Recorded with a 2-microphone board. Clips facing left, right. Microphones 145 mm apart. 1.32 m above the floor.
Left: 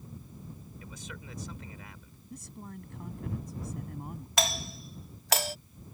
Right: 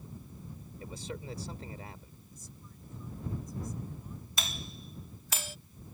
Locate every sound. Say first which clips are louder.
0.8 s a man speaking: right 7 dB; 35° right (ahead or behind)
2.3 s a man speaking: left 13 dB; 70° left (ahead or behind)
4.4 s a doorbell: left 11 dB; 75° left (ahead or behind)